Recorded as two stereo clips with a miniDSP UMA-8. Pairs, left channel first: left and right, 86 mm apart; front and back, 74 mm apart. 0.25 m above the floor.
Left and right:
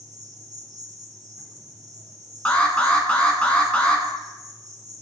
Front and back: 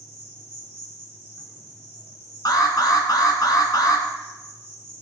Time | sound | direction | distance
0.0 | an insect | 125° right | 3.5 m
2.5 | an alarm | 15° left | 1.9 m